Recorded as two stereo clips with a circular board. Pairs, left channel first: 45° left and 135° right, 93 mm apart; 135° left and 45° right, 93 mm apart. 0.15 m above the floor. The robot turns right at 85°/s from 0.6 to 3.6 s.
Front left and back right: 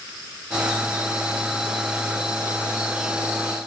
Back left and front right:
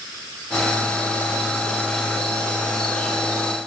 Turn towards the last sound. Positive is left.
No sound to turn to.